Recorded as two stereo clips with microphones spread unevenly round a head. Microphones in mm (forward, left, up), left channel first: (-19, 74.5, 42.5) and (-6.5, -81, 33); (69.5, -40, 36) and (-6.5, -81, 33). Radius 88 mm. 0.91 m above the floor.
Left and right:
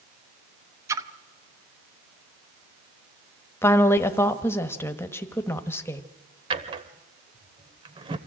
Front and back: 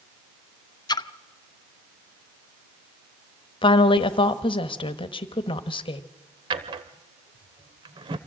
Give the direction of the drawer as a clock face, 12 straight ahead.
5 o'clock.